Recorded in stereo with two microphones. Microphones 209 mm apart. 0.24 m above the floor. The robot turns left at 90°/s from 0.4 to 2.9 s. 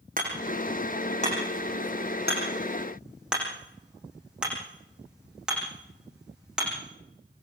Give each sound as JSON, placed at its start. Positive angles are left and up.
{"t": 0.2, "sound": "hammering", "side_deg": -40, "distance_m": 9.0}